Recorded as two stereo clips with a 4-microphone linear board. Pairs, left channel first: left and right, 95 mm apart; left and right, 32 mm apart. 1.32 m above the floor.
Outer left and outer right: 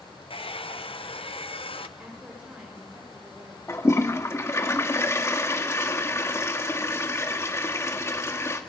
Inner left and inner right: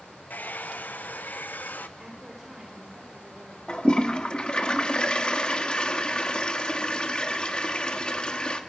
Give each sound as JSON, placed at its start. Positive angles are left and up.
{"t": 0.3, "sound": "a hair dryer", "side_deg": 70, "distance_m": 1.0}
{"t": 2.0, "sound": "a woman speaking", "side_deg": -10, "distance_m": 5.5}
{"t": 3.7, "sound": "a toilet flushing", "side_deg": 30, "distance_m": 1.5}